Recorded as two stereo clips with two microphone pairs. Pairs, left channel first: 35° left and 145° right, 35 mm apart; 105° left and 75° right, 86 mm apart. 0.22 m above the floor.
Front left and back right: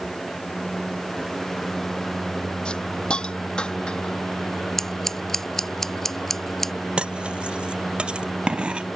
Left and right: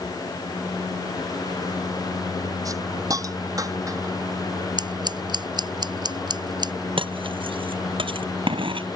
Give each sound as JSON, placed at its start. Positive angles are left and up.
{"t": 2.6, "sound": "a hiss", "azimuth_deg": -25}
{"t": 4.8, "sound": "scissors", "azimuth_deg": -45}
{"t": 7.0, "sound": "cutlery clinking", "azimuth_deg": -85}